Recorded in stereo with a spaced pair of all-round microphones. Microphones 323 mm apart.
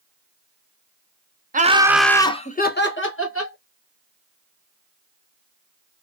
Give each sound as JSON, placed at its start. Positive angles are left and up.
{"t": 1.5, "sound": "laughter", "side_deg": -30, "distance_m": 0.5}